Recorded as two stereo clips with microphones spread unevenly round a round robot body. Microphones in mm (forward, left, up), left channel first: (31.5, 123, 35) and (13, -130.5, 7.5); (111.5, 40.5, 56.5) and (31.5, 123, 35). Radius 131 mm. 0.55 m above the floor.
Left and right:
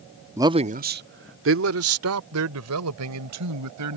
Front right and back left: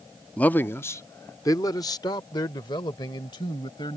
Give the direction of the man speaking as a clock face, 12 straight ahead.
5 o'clock.